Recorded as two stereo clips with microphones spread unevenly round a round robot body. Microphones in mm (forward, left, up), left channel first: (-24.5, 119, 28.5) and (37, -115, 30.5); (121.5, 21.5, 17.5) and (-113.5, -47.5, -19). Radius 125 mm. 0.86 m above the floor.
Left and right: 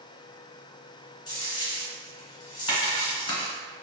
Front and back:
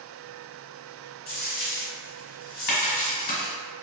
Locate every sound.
1.3 s a dropped coin: 35° left, 1.2 m